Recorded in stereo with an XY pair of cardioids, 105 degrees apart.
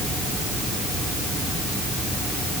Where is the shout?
No shout in this recording.